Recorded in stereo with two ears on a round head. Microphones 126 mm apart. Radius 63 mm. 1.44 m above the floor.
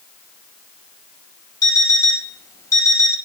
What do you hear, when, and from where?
1.6 s an alarm clock: 25° left (ahead or behind), 4.5 m